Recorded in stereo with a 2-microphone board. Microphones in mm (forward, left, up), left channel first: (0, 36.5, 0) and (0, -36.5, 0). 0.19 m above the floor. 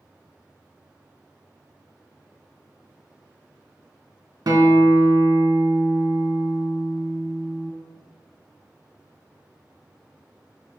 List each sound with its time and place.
4.5 s a guitar: 60° right (ahead or behind), 0.5 m